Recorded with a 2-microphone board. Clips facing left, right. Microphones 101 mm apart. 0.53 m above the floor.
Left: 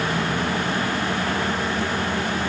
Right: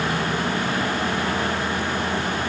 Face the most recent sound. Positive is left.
No sound to turn to.